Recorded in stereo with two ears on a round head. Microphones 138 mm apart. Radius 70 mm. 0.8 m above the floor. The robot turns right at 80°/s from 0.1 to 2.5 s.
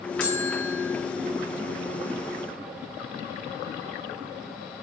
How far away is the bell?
About 5 m.